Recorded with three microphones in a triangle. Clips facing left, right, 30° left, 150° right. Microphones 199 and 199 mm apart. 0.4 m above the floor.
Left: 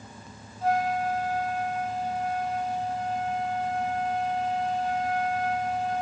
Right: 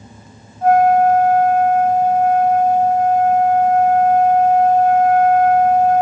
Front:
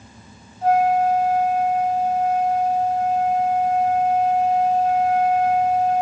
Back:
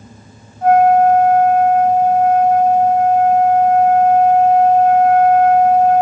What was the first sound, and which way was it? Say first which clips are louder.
A flute: right 14 dB, back 7 dB; 125° right.